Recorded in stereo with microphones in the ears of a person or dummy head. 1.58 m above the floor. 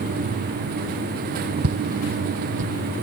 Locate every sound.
1.6 s footsteps: 55° right (ahead or behind); by 2.7 s 45° right (ahead or behind)